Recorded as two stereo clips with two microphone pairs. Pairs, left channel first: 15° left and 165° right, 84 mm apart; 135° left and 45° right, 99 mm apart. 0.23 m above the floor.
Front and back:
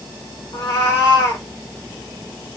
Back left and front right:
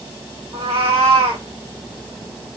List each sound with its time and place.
0.5 s a cat meowing: 45° right, 2 m